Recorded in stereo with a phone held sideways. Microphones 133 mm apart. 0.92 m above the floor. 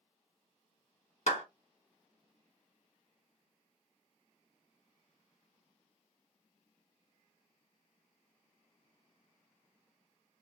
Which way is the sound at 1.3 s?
60° left (ahead or behind).